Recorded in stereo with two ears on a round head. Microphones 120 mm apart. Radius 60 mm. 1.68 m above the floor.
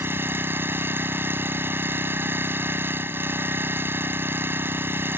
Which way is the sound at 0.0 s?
20° right (ahead or behind).